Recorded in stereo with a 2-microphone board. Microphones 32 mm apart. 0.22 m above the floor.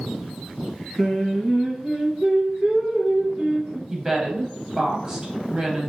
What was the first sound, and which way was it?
Singing, 20° right (ahead or behind).